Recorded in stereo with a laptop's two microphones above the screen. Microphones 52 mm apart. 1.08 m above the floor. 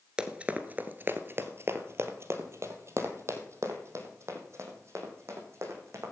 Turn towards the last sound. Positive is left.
turn(degrees=-55)  # may be behind; listen again after turning